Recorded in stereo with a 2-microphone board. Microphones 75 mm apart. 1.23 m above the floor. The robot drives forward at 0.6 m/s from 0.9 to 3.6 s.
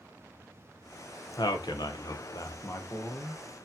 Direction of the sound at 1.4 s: 70° left (ahead or behind).